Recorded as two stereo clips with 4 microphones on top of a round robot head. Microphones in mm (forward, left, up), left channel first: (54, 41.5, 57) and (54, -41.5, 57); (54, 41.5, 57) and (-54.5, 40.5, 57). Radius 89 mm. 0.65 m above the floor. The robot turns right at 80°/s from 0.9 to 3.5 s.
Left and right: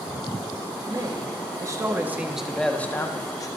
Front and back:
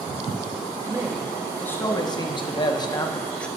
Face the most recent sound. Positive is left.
turn(degrees=80)